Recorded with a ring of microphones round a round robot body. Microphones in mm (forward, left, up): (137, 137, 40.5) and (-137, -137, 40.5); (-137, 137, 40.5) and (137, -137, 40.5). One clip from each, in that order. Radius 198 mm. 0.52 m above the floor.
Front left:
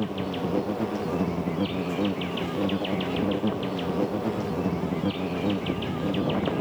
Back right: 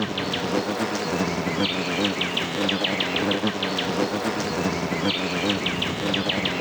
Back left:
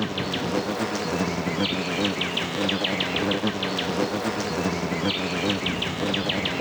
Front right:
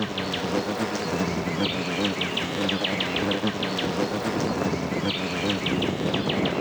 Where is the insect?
140° right.